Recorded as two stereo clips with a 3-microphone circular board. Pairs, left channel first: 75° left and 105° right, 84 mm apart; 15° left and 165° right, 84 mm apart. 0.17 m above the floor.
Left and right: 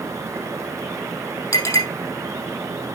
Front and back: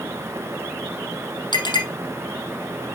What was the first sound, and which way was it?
A clink, 30° left.